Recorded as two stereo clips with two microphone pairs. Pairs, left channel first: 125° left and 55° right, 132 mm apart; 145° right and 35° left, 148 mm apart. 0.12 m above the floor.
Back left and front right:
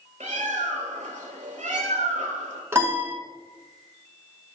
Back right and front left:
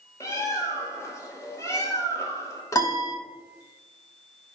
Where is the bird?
75° right, 0.6 m.